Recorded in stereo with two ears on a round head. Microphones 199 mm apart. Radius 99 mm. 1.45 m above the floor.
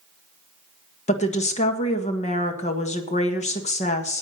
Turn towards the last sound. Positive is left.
turn(degrees=35)  # may be behind; listen again after turning